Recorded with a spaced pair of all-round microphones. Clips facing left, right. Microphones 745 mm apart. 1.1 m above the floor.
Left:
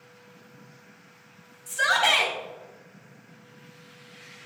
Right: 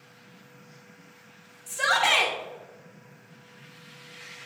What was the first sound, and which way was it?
A shout, 45° left (ahead or behind).